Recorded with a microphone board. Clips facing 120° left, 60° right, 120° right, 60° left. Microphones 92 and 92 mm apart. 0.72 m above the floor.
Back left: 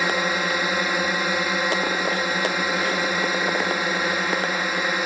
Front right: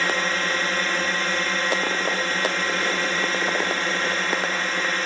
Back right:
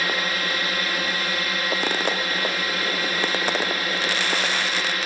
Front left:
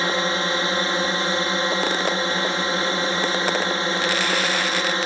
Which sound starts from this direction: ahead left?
A drone, at 0.0 s.